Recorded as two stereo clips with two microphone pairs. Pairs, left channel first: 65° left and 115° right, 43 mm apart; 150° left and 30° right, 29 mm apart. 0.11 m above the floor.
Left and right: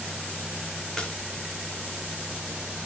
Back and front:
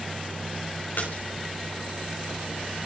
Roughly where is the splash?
Behind left.